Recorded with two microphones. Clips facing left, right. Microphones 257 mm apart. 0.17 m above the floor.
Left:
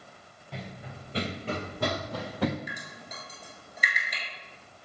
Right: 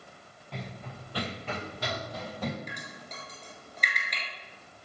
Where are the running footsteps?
Centre (ahead or behind), 1.2 m; by 2.6 s 85° left, 1.2 m.